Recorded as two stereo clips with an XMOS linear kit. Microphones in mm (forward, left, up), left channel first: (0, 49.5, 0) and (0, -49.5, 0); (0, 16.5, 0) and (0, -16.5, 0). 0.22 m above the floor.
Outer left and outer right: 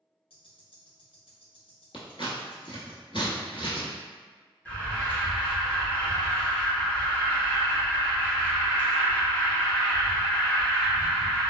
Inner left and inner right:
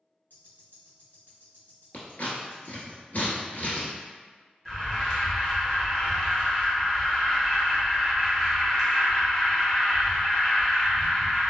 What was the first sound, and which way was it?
Ticking, 70° left (ahead or behind).